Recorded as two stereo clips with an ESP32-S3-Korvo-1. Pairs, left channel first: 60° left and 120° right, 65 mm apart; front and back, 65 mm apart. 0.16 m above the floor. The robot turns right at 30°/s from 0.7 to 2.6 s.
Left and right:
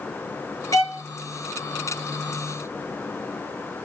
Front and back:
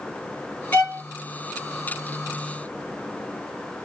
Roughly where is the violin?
Left.